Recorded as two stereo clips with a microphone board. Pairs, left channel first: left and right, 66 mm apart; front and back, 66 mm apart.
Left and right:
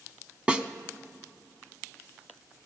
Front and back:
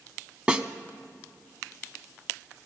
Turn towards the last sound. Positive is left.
turn(degrees=-130)